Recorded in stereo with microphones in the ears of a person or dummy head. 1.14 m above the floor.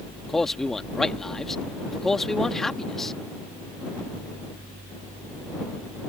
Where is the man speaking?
5° left (ahead or behind).